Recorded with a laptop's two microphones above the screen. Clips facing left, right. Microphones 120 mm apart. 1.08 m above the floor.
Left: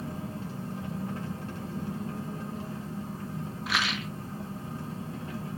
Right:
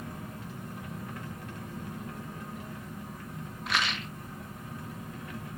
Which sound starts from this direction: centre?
A rattle, at 3.7 s.